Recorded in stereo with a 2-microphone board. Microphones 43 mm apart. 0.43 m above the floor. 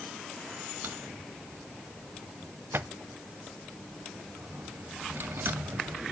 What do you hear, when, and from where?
0.8 s a drawer: 60° right (ahead or behind), 0.6 m